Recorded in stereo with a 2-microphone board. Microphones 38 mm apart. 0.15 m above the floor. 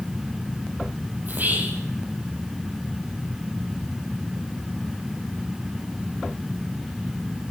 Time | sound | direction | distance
1.2 | whispering | 50° right (ahead or behind) | 6 m